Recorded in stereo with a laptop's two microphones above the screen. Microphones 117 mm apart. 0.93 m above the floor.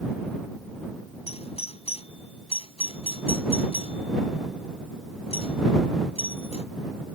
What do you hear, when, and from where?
1.3 s a doorbell: 70° left (ahead or behind)